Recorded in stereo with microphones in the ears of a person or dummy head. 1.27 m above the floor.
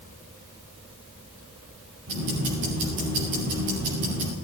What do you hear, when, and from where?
2.1 s ticking: 60° right (ahead or behind), 7 m